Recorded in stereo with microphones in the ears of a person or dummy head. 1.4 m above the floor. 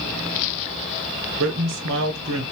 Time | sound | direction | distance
1.4 | a man speaking | 60° right (ahead or behind) | 0.6 m